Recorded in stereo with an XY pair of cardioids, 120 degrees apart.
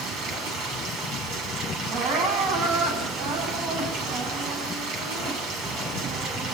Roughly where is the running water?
Ahead right.